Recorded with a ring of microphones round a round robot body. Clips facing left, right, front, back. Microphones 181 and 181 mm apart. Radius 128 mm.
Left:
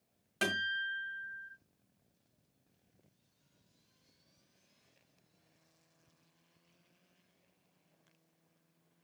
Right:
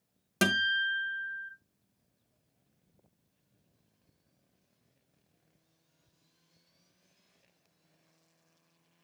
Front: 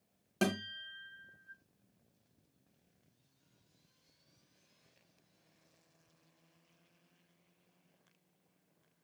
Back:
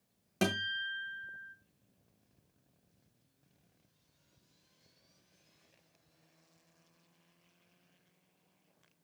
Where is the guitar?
95° right, 1.7 m.